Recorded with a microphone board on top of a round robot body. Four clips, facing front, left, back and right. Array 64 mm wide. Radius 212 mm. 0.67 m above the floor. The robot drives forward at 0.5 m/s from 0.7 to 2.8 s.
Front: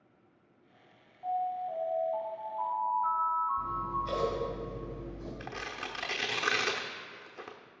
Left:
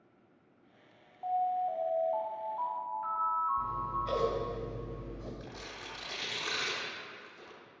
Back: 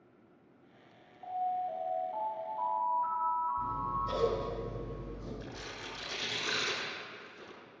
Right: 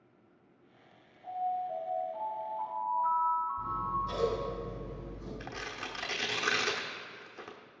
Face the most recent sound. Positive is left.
turn(degrees=-30)